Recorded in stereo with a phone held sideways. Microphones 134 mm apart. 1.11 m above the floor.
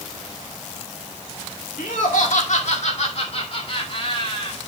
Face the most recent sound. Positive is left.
turn(degrees=40)  # may be behind; listen again after turning